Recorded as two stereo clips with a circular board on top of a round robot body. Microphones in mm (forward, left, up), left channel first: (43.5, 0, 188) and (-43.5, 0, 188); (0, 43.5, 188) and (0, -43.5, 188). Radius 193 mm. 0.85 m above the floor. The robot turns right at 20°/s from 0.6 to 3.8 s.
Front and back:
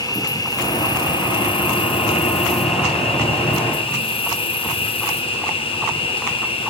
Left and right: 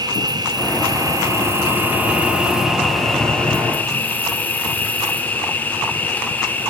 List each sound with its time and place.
0.0 s an insect: 45° right, 0.7 m; by 6.7 s 20° left, 0.7 m